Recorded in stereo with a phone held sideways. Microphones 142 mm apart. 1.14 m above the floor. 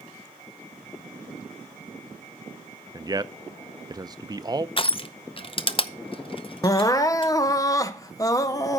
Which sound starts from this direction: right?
A man speaking, at 2.9 s.